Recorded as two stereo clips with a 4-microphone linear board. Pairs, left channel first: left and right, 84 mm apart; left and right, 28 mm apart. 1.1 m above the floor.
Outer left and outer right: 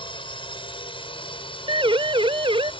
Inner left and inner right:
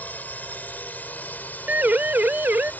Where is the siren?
80° right; by 2.7 s 85° right.